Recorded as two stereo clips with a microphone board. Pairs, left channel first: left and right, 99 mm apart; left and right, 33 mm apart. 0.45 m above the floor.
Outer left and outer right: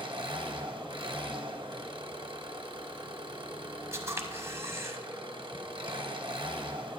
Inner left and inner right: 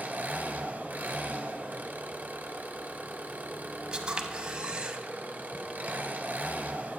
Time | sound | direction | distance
0.0 | an engine running | 60° right (ahead or behind) | 1.0 m
3.9 | a camera shutter | 30° right (ahead or behind) | 0.9 m